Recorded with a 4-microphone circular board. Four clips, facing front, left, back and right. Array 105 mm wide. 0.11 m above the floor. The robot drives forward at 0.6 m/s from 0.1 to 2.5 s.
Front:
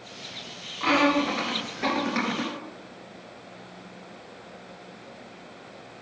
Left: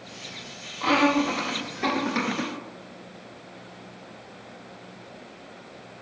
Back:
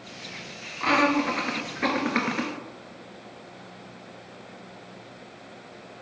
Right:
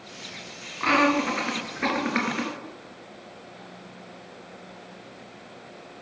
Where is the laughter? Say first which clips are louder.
Even, even; 105° right, 1.7 m; by 2.5 s 150° right, 2 m.